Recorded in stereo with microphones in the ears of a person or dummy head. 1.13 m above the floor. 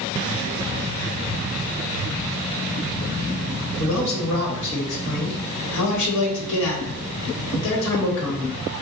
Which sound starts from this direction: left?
A man speaking, at 3.8 s.